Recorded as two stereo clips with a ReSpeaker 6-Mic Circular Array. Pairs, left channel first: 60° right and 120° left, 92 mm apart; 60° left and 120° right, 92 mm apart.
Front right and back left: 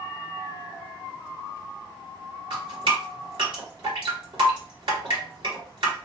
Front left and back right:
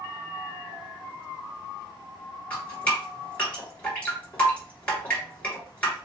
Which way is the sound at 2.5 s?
130° left.